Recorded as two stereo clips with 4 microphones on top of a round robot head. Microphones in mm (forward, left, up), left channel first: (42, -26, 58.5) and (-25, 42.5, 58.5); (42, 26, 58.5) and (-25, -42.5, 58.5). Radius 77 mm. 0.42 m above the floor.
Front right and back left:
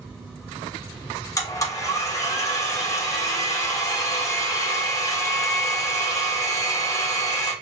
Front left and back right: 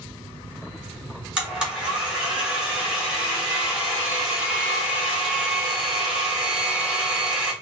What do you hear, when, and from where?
1.4 s a blender: 60° right, 1.5 m